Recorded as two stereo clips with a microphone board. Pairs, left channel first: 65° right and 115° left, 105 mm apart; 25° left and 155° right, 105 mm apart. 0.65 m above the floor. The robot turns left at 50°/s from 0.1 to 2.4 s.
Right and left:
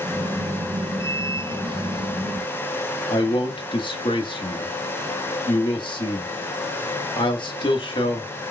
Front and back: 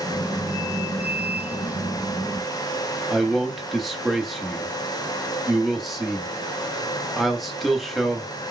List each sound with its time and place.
3.1 s a man speaking: 70° right, 0.9 m